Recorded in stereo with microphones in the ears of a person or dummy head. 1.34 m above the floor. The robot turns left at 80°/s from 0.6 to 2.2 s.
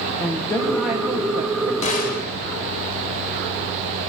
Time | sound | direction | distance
0.2 | a woman speaking | 15° left | 0.7 m
1.8 | a gunshot | 140° left | 1.1 m